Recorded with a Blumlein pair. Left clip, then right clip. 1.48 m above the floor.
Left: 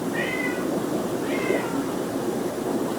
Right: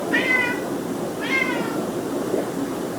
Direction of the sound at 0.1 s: 40° right.